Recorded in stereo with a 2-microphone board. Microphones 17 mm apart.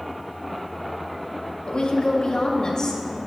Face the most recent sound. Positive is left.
turn(degrees=40)  # may be behind; listen again after turning